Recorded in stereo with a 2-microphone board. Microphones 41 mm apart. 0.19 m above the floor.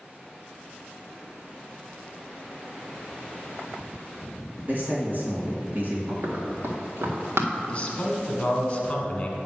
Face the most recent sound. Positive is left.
turn(degrees=25)  # may be behind; listen again after turning